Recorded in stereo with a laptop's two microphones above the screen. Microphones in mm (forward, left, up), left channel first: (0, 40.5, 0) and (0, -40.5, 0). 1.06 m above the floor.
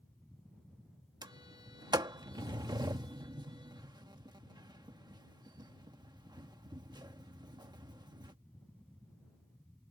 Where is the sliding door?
65° right (ahead or behind).